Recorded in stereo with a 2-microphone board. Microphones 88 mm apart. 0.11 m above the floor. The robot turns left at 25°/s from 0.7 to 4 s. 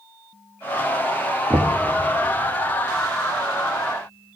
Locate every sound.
1.5 s knocking: 35° right (ahead or behind), 0.9 m